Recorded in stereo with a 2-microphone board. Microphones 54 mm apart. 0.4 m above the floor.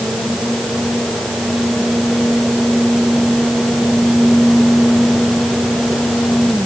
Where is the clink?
I don't hear a clink.